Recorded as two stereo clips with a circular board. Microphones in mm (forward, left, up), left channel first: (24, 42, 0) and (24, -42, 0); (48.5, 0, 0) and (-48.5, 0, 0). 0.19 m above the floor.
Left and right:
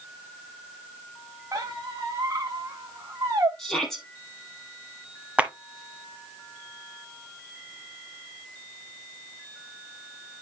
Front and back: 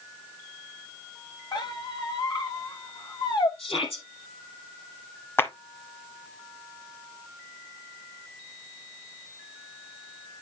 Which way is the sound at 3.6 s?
5° left.